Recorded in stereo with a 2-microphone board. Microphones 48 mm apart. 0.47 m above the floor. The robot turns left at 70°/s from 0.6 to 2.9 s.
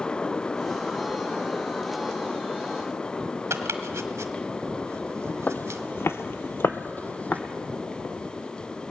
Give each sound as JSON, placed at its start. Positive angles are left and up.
{"t": 3.5, "sound": "chopping", "side_deg": -75, "distance_m": 1.2}
{"t": 5.5, "sound": "footsteps", "side_deg": 40, "distance_m": 1.0}